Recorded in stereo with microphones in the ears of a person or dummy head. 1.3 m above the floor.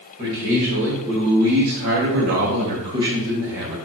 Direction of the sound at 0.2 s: 40° right (ahead or behind).